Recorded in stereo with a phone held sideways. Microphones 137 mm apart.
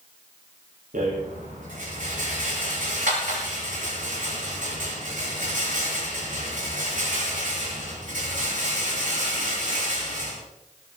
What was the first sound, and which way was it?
A rattle, 85° right.